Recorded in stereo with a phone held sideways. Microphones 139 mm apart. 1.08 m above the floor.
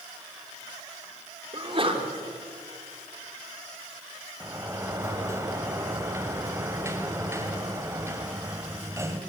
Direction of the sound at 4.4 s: 20° right (ahead or behind).